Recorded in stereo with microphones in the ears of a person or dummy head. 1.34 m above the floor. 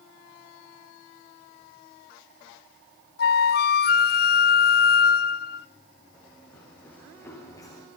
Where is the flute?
55° left (ahead or behind), 0.7 m.